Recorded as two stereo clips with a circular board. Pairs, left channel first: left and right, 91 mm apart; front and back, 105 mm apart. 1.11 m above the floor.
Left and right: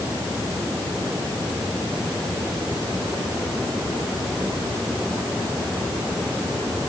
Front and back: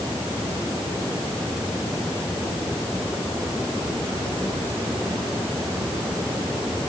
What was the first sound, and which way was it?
Only background noise.